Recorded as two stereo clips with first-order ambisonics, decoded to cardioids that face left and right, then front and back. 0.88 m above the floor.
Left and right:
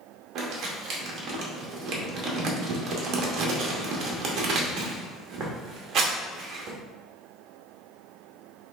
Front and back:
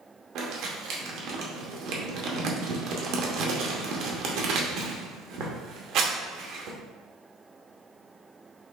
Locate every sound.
0.3 s crumpling: 140° right, 0.8 m